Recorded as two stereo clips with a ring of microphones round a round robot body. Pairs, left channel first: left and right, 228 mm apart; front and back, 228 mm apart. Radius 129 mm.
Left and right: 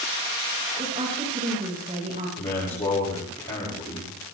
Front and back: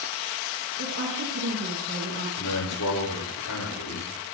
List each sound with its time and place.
0.8 s a woman speaking: 150° right, 5 m
2.4 s a man speaking: 20° left, 6.5 m